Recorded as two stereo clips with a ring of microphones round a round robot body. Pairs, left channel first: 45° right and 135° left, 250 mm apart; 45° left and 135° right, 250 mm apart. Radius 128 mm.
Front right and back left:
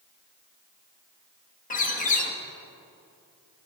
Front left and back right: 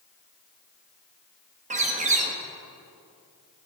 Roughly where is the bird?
Right.